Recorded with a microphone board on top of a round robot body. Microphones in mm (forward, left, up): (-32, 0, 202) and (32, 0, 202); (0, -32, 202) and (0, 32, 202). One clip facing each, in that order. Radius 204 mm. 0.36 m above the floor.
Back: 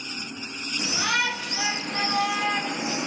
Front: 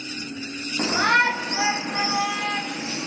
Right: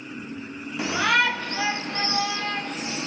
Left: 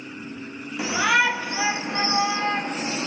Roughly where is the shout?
Ahead.